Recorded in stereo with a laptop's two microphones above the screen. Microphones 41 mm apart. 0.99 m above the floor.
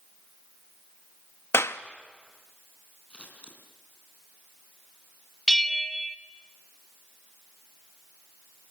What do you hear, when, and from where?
1.5 s a clap: 85° left, 0.9 m
3.1 s scissors: 30° left (ahead or behind), 3.5 m
5.5 s a bell: 5° left (ahead or behind), 0.8 m